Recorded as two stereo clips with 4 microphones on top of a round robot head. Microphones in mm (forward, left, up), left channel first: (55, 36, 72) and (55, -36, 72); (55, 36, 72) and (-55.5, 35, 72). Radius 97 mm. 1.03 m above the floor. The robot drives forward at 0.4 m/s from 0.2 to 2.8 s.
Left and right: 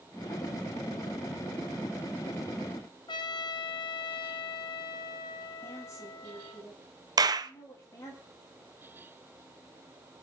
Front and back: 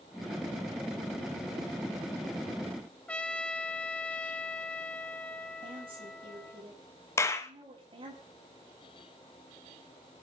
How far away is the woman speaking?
About 8.5 m.